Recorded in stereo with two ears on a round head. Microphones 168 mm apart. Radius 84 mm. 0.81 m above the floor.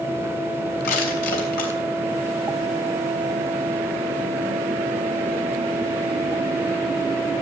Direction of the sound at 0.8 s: 55° left (ahead or behind).